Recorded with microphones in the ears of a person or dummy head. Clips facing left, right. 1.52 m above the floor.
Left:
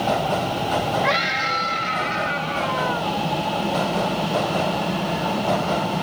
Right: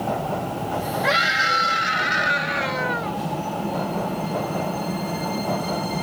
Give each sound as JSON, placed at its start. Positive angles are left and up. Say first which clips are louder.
{"t": 1.0, "sound": "a scream", "louder": "left 1 dB", "side_deg": 5}